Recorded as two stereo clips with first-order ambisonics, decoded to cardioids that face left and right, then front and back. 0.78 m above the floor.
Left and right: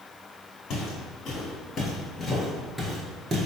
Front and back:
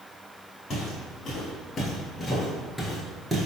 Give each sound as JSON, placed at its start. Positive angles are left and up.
{"t": 0.7, "sound": "footsteps", "azimuth_deg": 50, "distance_m": 1.3}